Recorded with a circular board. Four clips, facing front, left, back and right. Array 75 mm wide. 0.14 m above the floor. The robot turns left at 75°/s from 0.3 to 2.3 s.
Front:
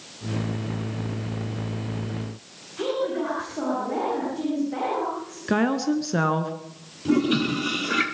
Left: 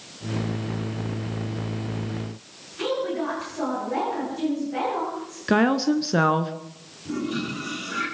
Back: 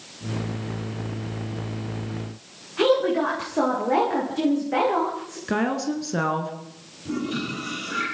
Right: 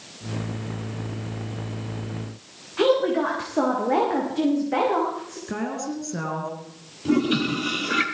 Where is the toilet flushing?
50° right, 4 m.